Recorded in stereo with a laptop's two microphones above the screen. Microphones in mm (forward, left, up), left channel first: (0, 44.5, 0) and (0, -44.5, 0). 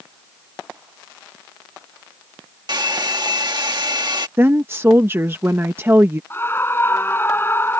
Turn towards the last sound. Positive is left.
turn(degrees=25)  # may be behind; listen again after turning